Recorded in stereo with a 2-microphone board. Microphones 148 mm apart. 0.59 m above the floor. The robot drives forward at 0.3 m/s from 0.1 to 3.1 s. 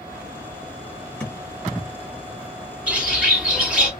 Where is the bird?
10° right (ahead or behind), 1.7 m.